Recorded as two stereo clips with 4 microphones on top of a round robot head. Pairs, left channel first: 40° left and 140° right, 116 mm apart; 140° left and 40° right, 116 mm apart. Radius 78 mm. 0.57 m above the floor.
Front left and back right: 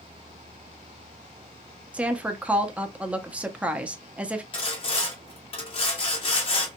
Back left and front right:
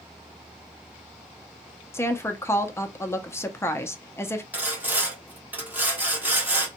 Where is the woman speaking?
160° left, 0.6 m.